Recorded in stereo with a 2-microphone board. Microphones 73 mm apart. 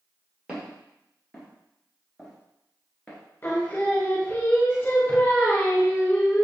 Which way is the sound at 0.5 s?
10° right (ahead or behind).